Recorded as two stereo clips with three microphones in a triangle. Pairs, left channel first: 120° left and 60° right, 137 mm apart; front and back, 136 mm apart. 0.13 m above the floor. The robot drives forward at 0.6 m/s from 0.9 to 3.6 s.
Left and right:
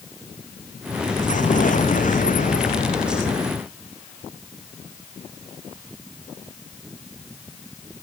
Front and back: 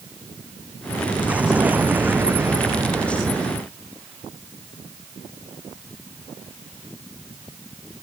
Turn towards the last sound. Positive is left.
turn(degrees=110)